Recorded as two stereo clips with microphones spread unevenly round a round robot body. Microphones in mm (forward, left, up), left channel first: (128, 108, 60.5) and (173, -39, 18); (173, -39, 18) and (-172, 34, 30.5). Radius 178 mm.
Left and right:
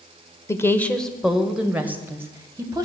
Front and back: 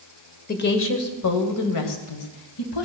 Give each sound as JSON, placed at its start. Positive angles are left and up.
{"t": 0.5, "sound": "a woman speaking", "azimuth_deg": 25, "distance_m": 1.2}